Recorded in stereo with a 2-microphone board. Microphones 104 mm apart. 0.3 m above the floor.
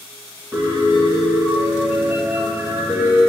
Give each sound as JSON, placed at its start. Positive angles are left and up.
{"t": 0.5, "sound": "a piano", "side_deg": -20, "distance_m": 2.0}